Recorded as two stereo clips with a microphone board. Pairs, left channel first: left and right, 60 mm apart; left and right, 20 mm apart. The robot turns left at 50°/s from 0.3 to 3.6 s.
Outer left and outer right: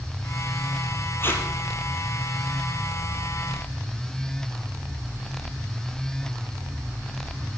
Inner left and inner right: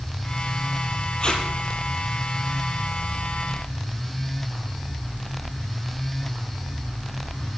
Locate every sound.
1.2 s tape being pulled: 40° left (ahead or behind), 3 m; by 1.4 s 30° left (ahead or behind), 3 m